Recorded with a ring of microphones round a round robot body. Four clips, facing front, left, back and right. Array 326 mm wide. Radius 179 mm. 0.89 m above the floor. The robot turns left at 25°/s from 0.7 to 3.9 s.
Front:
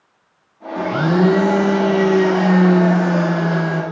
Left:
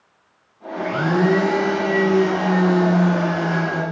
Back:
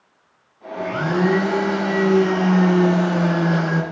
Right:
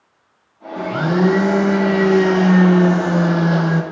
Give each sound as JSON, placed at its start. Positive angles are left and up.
{"t": 0.8, "sound": "a blender", "azimuth_deg": -20, "distance_m": 0.8}